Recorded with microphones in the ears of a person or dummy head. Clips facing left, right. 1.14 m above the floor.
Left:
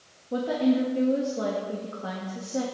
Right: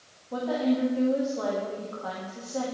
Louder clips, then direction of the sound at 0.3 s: Left 2 dB; 25° left (ahead or behind).